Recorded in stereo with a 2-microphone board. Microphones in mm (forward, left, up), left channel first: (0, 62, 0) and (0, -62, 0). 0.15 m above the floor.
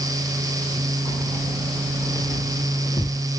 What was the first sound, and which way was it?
Keys jangling, 40° left (ahead or behind).